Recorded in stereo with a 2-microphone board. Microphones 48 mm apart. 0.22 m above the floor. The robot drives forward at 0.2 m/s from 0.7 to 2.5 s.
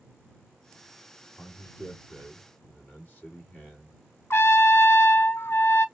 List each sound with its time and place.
1.4 s a man speaking: 40° left (ahead or behind), 2.0 m; by 4.0 s 35° left (ahead or behind), 2 m
4.3 s a trumpet: 60° left (ahead or behind), 0.5 m